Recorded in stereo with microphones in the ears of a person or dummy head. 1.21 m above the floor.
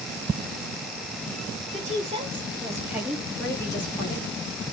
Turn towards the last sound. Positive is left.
turn(degrees=35)  # may be behind; listen again after turning